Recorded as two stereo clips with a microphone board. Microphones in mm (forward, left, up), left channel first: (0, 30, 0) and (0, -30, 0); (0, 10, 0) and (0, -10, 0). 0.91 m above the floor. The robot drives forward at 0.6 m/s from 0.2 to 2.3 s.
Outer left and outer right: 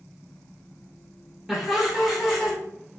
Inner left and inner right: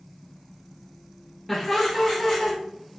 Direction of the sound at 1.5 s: 5° right (ahead or behind).